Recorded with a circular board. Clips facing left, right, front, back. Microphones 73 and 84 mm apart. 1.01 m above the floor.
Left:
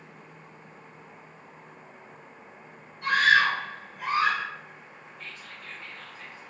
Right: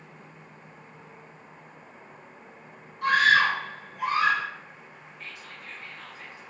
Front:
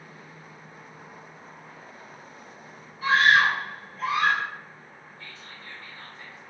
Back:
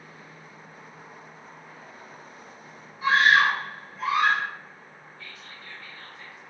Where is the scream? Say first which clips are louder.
Right 1 dB, even; 110° right, 0.7 m.